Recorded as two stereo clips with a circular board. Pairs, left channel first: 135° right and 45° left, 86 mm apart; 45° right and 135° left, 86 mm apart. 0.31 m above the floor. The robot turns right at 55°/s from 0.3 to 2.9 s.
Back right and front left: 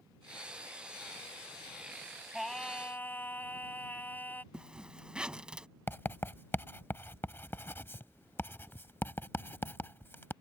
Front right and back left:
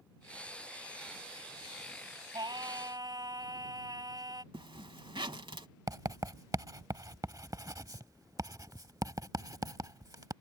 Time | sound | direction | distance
2.3 | singing | 130° left | ?
4.5 | a zipper | 125° left | ?
5.9 | writing | 170° left | ?